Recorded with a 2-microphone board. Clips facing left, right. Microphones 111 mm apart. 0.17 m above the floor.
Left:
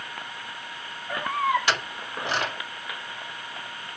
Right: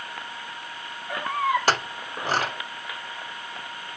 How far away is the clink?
About 0.9 m.